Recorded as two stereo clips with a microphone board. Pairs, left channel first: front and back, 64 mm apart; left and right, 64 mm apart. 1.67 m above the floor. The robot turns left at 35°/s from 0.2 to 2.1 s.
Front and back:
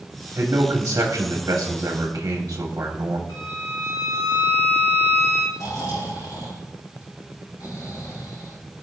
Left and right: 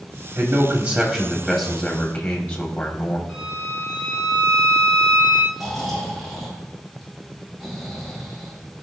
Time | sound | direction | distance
0.3 | a man speaking | 155° right | 1.6 m
3.3 | a violin | 5° left | 4.5 m
5.5 | snoring | straight ahead | 4 m